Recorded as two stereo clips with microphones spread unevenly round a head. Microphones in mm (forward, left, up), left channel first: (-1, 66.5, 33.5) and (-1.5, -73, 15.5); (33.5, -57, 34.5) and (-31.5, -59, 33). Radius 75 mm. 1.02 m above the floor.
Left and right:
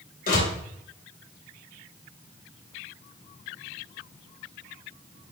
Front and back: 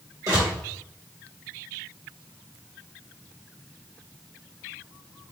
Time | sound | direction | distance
0.3 | a door slam | 120° left | 3 m